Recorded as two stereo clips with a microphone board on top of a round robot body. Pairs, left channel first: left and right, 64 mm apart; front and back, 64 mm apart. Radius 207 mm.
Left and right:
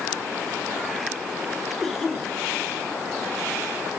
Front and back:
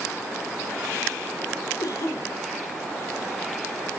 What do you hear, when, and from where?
1.8 s a cough: straight ahead, 4 m